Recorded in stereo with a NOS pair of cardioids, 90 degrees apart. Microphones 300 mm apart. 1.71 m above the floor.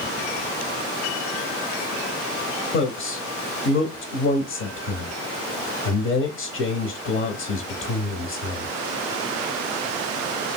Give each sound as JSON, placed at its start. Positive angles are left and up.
{"t": 2.7, "sound": "a man speaking", "azimuth_deg": 45, "distance_m": 0.6}